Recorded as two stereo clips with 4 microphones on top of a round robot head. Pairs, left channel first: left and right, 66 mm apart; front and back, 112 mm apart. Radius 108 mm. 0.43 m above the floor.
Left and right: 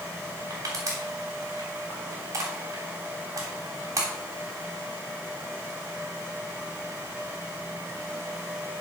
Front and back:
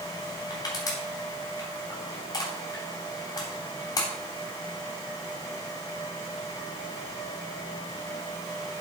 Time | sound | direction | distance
0.5 | crushing | 55° right | 3 m